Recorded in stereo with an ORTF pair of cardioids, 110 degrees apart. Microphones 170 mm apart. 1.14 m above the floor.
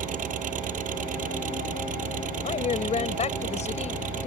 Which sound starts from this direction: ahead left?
A woman speaking, at 2.4 s.